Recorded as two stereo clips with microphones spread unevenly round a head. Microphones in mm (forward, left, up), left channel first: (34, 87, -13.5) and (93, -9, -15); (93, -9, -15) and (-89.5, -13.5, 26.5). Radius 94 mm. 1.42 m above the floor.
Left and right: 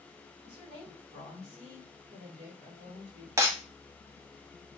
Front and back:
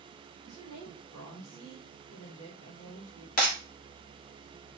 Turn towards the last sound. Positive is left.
turn(degrees=-15)